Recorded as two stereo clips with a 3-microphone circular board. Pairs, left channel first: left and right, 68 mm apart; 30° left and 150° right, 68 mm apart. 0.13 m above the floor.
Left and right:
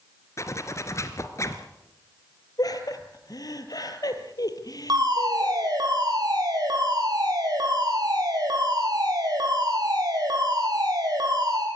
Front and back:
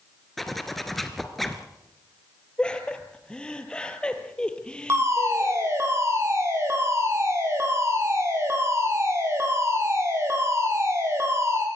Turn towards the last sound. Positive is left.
turn(degrees=-105)